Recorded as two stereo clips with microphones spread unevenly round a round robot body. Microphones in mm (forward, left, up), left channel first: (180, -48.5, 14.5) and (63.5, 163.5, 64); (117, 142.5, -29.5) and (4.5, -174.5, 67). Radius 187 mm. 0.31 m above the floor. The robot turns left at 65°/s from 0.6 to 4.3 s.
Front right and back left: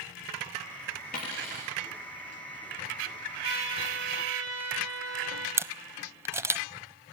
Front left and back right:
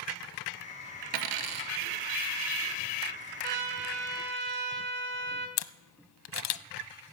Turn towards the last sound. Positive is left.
turn(degrees=35)